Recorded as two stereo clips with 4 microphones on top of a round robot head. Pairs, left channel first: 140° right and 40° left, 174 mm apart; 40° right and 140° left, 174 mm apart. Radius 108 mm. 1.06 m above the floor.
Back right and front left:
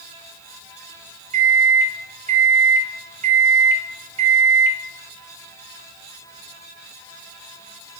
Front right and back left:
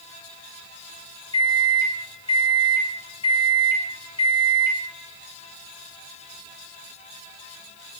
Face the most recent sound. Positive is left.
turn(degrees=10)